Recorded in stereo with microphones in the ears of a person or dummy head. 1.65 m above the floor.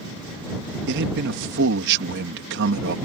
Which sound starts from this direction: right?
A man speaking, at 0.9 s.